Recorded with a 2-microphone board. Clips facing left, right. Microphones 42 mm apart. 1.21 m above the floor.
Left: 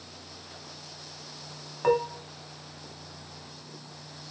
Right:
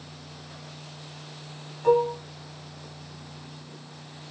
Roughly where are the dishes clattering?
Left.